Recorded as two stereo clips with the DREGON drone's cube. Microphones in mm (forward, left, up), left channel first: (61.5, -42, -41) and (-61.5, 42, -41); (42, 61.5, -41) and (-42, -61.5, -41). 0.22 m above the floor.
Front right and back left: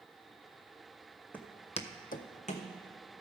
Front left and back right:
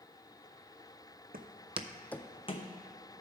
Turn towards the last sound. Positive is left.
turn(degrees=10)